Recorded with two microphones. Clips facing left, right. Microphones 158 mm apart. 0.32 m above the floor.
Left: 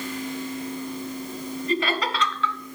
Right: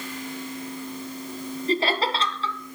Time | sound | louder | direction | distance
1.7 | laughter | right 2 dB | 30° right (ahead or behind) | 1.3 m